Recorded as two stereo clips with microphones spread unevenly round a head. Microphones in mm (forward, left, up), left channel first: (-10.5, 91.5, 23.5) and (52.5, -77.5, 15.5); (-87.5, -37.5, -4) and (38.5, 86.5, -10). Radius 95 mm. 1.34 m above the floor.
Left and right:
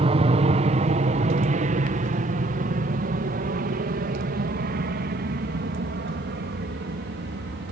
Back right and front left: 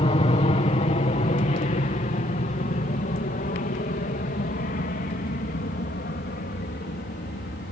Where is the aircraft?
100° right; by 7.7 s 95° right.